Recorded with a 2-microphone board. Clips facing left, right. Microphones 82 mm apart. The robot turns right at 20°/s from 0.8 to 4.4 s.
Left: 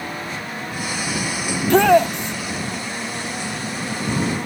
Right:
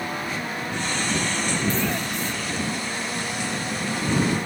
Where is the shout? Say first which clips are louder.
Left 16 dB; 65° left (ahead or behind); by 2.4 s 70° left (ahead or behind).